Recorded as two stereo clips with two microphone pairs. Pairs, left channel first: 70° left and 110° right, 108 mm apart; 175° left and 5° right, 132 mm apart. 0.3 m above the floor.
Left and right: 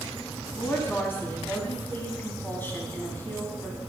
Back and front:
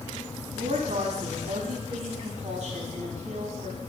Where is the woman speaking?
Straight ahead, 2 m.